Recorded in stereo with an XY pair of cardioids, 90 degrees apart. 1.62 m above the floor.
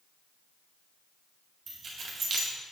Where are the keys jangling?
60° right, 1.8 m.